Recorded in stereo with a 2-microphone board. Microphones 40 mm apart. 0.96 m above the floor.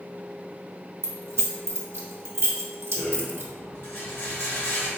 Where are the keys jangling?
85° right, 1.0 m.